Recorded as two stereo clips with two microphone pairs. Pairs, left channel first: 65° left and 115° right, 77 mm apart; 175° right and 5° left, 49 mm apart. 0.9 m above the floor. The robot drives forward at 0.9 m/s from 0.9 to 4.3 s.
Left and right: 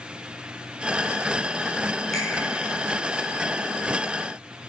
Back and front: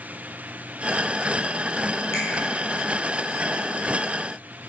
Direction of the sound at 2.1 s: 150° left.